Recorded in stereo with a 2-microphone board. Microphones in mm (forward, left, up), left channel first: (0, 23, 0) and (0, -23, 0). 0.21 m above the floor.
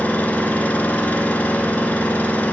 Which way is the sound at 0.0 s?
35° left (ahead or behind).